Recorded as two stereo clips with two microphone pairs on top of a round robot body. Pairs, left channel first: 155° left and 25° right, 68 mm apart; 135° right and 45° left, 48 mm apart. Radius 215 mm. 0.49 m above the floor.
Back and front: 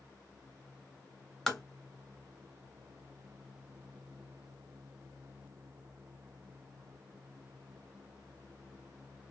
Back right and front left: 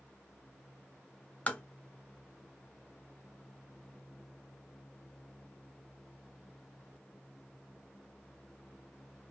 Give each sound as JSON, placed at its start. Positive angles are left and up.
{"t": 1.5, "sound": "tapping", "azimuth_deg": -115, "distance_m": 1.2}